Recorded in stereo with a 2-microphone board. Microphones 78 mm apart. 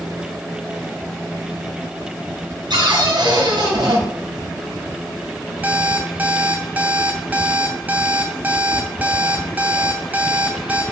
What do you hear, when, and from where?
2.7 s a cupboard door: 75° right (ahead or behind), 2 m
5.6 s an alarm clock: 20° right (ahead or behind), 1.0 m